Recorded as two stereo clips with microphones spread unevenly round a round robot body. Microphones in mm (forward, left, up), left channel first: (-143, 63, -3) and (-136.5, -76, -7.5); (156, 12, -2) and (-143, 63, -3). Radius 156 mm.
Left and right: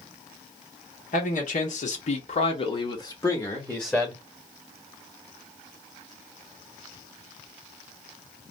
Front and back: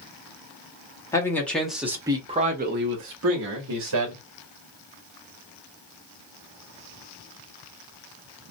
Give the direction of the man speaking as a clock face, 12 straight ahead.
10 o'clock.